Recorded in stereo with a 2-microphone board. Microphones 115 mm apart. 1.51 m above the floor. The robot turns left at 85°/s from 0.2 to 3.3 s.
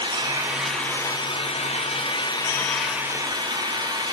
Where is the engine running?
140° right, 2.5 m; by 4.2 s 40° right, 2.5 m.